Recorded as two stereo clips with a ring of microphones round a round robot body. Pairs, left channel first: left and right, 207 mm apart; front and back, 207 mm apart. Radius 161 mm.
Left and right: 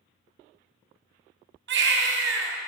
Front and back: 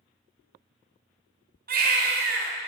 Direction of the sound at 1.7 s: 130° right.